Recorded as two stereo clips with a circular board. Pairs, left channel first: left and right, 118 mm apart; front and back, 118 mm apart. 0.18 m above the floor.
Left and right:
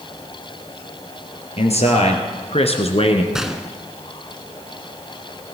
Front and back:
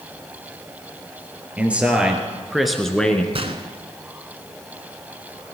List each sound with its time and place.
1.6 s a man speaking: 105° left, 3 m; by 3.2 s 80° left, 1.7 m
3.3 s a gunshot: 175° right, 1.2 m